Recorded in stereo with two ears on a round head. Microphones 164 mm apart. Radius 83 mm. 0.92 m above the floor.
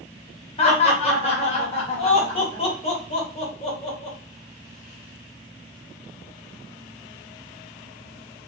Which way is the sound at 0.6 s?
35° left (ahead or behind).